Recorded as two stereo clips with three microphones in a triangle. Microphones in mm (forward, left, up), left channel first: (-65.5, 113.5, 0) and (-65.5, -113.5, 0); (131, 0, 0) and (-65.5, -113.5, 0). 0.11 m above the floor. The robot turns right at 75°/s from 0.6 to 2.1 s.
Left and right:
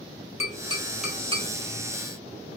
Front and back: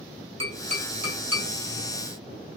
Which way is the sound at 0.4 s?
150° left.